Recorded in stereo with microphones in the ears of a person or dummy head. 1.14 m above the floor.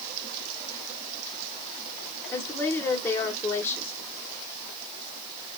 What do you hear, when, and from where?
2.3 s a woman speaking: 10° left (ahead or behind), 1.4 m